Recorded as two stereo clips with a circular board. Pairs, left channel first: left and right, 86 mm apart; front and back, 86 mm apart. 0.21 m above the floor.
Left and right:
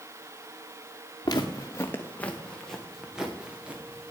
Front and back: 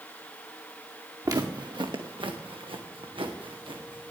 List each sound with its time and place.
1.2 s footsteps: 130° left, 1.7 m; by 4.1 s 165° right, 3.5 m